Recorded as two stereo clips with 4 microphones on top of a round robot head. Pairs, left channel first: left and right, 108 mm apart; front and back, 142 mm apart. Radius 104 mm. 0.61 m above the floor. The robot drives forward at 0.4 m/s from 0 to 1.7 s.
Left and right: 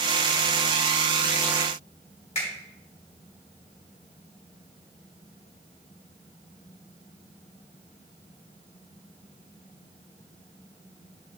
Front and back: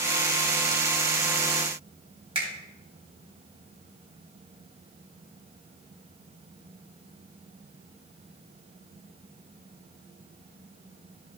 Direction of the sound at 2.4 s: 125° left.